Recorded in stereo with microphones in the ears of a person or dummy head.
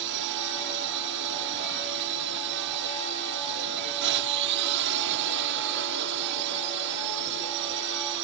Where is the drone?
65° right (ahead or behind).